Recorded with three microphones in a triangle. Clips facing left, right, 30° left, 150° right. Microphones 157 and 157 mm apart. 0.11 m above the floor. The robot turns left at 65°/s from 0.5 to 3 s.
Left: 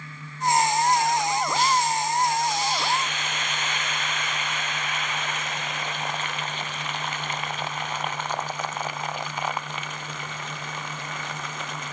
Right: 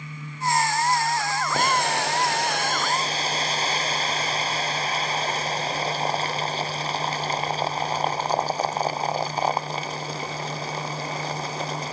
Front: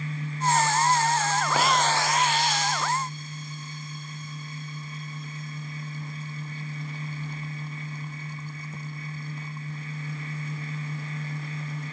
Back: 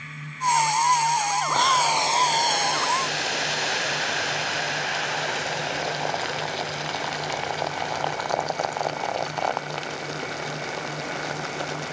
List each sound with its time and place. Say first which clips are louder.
1.5 s boiling: right 2 dB, back 1 dB; 50° right; by 11.9 s 145° right